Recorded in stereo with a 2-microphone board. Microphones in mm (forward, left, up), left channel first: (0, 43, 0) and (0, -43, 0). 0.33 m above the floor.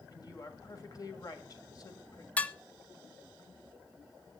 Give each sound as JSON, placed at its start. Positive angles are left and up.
{"t": 0.1, "sound": "a woman speaking", "side_deg": 45, "distance_m": 1.9}
{"t": 2.4, "sound": "dishes clattering", "side_deg": 15, "distance_m": 0.6}